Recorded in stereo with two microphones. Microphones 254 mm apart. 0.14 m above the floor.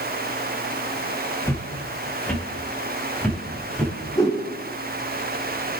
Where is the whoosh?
15° left (ahead or behind), 4 m.